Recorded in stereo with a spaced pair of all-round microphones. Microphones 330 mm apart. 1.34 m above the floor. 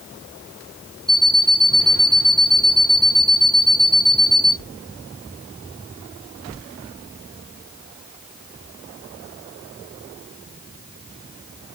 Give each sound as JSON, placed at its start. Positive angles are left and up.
{"t": 1.1, "sound": "an alarm clock", "side_deg": -10, "distance_m": 0.7}